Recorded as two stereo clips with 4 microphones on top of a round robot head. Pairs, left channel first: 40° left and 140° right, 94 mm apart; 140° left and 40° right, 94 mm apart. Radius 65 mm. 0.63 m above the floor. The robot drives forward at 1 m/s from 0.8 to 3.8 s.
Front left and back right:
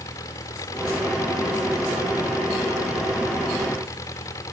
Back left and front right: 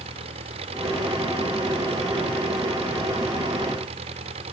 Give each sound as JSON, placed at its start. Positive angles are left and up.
{"t": 0.0, "sound": "an engine running", "azimuth_deg": -20}